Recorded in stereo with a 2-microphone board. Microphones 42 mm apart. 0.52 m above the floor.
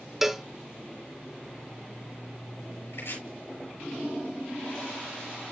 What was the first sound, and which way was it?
A cowbell, 10° right (ahead or behind).